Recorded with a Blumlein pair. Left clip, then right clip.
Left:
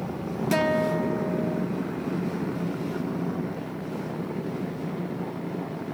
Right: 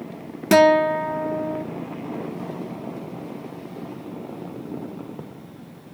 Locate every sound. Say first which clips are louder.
0.5 s a guitar: right 10 dB; 65° right, 0.6 m